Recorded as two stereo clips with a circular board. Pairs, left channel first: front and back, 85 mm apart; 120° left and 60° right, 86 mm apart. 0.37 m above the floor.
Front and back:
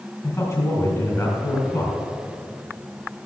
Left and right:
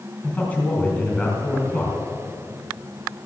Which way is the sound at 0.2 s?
50° left.